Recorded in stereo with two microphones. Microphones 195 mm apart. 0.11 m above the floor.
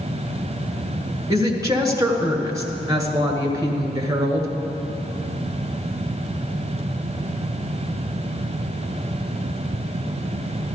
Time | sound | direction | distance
1.3 | a woman speaking | 20° right (ahead or behind) | 1.7 m